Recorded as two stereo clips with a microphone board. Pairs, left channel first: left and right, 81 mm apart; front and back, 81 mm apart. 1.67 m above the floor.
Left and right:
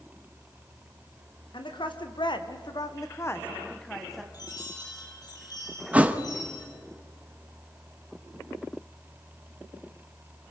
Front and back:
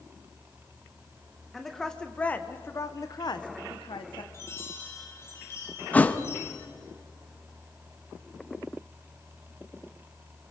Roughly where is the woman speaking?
Left.